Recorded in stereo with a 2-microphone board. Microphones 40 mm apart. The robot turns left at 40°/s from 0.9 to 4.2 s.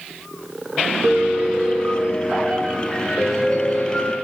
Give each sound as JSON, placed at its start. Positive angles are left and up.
{"t": 1.0, "sound": "a piano", "azimuth_deg": -100, "distance_m": 4.0}